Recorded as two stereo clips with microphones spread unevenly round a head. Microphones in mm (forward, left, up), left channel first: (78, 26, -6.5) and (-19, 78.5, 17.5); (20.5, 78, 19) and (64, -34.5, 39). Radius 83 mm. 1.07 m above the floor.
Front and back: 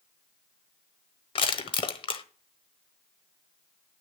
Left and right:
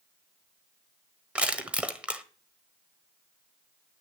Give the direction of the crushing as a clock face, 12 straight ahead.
12 o'clock.